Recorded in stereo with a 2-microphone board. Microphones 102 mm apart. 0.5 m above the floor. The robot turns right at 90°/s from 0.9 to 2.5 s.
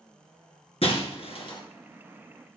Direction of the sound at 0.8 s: 70° left (ahead or behind).